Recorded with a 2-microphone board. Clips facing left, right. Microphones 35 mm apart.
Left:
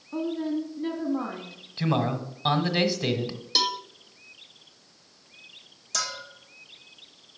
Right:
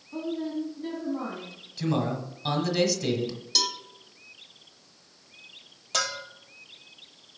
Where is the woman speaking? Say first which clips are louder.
Left 3 dB; 20° left (ahead or behind), 1.5 m.